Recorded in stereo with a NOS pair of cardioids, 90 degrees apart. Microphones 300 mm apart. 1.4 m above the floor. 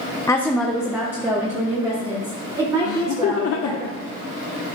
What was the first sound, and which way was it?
A woman speaking, 10° left.